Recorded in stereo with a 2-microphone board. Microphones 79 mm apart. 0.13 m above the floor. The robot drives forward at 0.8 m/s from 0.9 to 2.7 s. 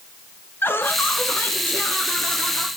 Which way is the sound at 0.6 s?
30° left (ahead or behind).